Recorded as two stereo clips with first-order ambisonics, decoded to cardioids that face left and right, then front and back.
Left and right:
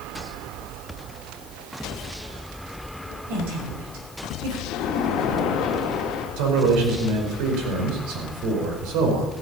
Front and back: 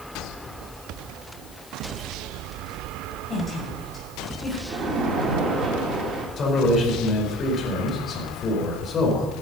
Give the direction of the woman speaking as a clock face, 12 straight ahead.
3 o'clock.